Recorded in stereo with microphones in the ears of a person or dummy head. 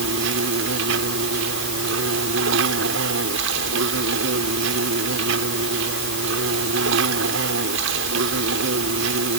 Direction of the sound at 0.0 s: 70° right (ahead or behind).